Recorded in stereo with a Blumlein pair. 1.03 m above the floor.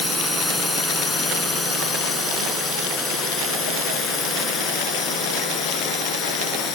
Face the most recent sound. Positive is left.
turn(degrees=25)